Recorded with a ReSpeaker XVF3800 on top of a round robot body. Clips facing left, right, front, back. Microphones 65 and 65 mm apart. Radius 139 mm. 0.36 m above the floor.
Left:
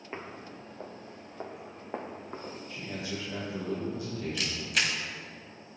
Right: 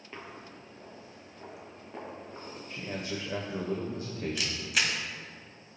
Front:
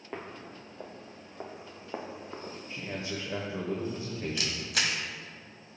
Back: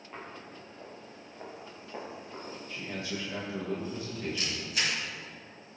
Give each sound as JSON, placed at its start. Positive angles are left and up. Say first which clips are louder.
{"t": 0.1, "sound": "footsteps", "louder": "left 3 dB, front 3 dB", "azimuth_deg": 30, "distance_m": 0.5}
{"t": 2.7, "sound": "a man speaking", "louder": "right 2 dB, front 1 dB", "azimuth_deg": -55, "distance_m": 1.7}
{"t": 4.4, "sound": "a camera shutter", "louder": "left 1 dB, front 1 dB", "azimuth_deg": -5, "distance_m": 1.8}